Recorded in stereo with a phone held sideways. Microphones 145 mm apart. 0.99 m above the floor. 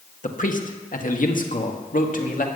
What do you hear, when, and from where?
0.2 s a man speaking: 65° left (ahead or behind), 1.4 m